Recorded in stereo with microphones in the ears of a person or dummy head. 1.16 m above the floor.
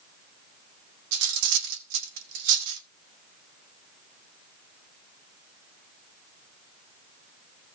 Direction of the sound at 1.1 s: 80° right.